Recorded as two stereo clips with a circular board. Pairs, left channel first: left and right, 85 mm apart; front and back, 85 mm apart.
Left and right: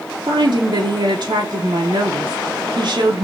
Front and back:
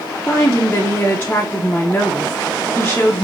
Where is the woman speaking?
70° right, 0.8 m.